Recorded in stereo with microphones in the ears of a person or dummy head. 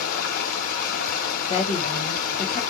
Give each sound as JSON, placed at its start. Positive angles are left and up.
{"t": 0.0, "sound": "running water", "side_deg": 50, "distance_m": 0.8}
{"t": 1.5, "sound": "a woman speaking", "side_deg": 40, "distance_m": 1.1}